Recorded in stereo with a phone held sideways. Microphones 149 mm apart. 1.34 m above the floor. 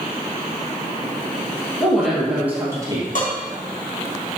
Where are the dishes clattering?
65° left (ahead or behind), 1.8 m.